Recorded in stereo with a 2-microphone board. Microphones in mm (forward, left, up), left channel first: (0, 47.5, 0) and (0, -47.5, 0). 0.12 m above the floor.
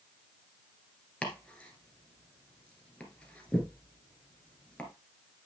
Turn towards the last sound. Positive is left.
turn(degrees=15)  # may be behind; listen again after turning